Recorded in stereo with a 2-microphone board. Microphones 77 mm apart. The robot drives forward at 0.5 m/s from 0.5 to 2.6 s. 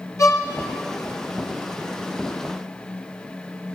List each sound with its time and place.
0.2 s a violin: 40° left (ahead or behind), 0.5 m